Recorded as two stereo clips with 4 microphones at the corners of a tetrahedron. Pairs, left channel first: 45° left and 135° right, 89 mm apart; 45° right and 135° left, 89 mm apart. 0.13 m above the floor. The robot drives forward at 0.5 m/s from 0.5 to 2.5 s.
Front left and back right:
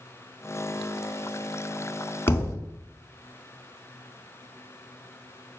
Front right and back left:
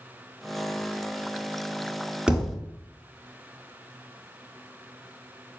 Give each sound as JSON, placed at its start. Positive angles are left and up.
{"t": 2.3, "sound": "a thud", "azimuth_deg": 65, "distance_m": 0.6}